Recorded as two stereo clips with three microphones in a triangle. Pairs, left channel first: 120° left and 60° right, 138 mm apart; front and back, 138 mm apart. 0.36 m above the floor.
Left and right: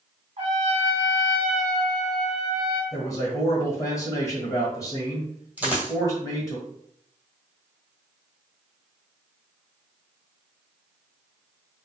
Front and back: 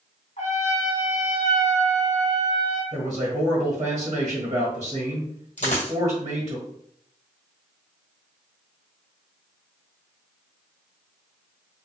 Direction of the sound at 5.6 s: 20° left.